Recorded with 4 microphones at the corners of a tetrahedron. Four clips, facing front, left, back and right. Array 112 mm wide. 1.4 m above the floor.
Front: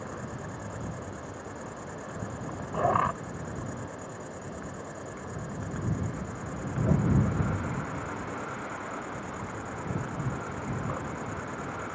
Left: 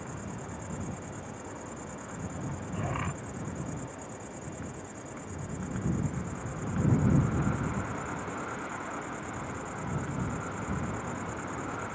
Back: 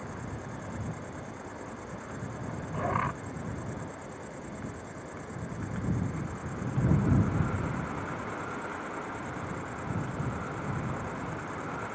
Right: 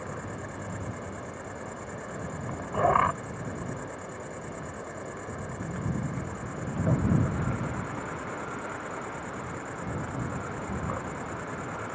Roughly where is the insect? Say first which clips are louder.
Right 3 dB, front 2 dB; ahead right.